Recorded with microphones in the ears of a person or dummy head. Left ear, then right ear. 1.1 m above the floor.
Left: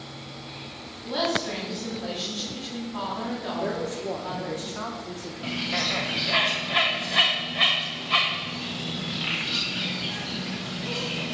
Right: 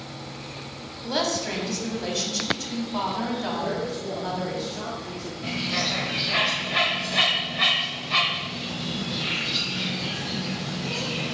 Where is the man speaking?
45° left (ahead or behind), 0.6 m.